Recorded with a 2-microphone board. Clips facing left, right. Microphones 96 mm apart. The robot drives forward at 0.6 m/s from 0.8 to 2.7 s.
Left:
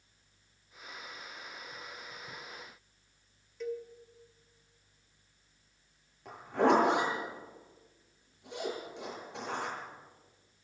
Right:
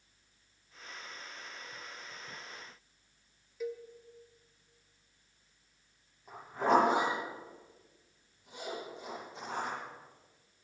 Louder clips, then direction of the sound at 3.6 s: Left 1 dB; 5° right (ahead or behind).